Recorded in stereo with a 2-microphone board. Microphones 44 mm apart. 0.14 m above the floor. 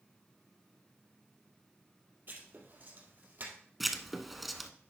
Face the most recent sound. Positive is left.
turn(degrees=0)  # may be behind; listen again after turning